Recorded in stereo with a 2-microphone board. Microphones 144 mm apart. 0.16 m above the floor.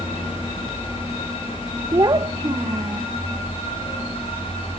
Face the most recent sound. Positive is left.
turn(degrees=-30)  # may be behind; listen again after turning